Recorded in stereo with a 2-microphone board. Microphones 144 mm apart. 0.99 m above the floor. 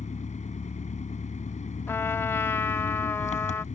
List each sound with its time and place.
0.0 s an engine running: 55° left (ahead or behind)
1.9 s a trumpet: 15° left (ahead or behind)